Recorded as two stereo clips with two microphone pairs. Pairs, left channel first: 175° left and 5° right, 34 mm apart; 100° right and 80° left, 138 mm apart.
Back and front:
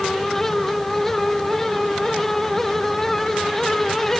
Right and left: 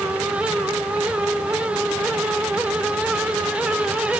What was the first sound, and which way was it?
Only background noise.